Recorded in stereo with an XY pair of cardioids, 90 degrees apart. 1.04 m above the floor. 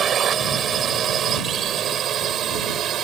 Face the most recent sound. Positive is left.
turn(degrees=-80)